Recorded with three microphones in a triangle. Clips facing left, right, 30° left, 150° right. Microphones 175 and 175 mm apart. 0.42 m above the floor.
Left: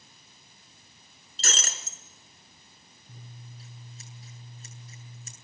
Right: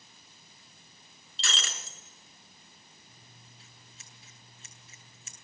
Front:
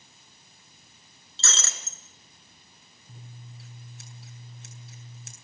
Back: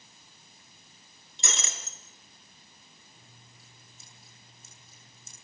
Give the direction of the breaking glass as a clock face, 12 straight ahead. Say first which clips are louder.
Left 3 dB, even; 7 o'clock.